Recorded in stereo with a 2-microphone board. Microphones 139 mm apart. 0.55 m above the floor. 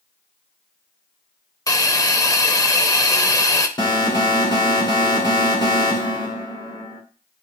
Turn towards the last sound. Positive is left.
turn(degrees=30)  # may be behind; listen again after turning